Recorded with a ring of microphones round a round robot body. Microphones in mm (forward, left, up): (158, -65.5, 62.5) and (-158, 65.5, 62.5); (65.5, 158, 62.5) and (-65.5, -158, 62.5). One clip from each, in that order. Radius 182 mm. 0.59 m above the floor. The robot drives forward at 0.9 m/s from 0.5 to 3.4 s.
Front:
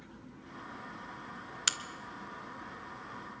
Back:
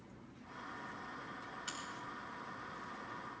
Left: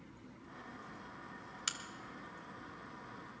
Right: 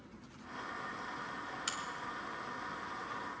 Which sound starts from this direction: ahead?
A crack, at 1.7 s.